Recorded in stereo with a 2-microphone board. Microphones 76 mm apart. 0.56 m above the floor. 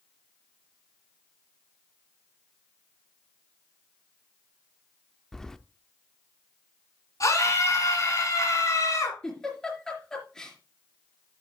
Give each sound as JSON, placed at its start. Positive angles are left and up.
{"t": 5.3, "sound": "keys jangling", "side_deg": 10, "distance_m": 0.6}
{"t": 7.2, "sound": "a scream", "side_deg": 50, "distance_m": 6.5}
{"t": 9.2, "sound": "a giggle", "side_deg": 5, "distance_m": 4.0}